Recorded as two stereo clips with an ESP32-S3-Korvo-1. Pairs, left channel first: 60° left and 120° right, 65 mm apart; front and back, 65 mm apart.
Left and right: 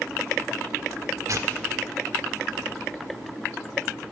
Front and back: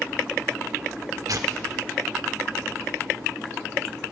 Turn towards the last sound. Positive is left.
turn(degrees=-155)